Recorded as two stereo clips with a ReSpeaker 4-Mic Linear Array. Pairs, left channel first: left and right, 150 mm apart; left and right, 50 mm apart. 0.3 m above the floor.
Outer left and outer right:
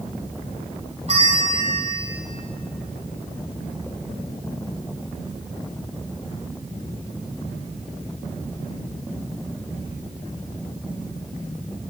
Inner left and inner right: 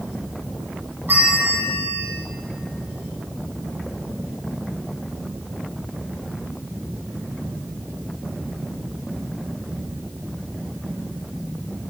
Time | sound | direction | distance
1.1 | a bell | 45° right (ahead or behind) | 2 m